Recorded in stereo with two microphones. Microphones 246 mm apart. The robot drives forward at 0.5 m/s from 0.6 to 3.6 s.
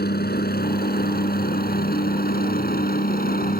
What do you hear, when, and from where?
0.0 s a helicopter: 40° left (ahead or behind); by 3.6 s 35° left (ahead or behind)